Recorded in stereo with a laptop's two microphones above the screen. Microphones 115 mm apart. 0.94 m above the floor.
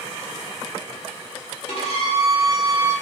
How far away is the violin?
About 1.8 m.